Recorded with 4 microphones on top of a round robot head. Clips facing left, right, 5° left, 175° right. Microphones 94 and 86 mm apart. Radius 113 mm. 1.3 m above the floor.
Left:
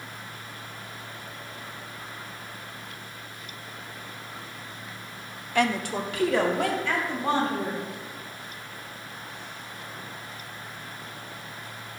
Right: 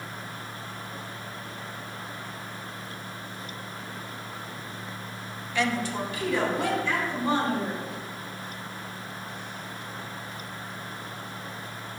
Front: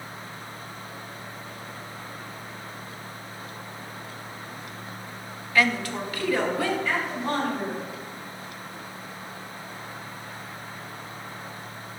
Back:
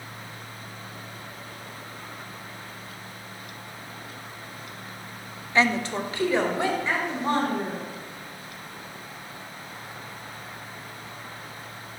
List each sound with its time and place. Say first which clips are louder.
5.5 s a woman speaking: left 2 dB, back 1 dB; 125° left, 0.6 m; by 7.8 s 120° left, 4 m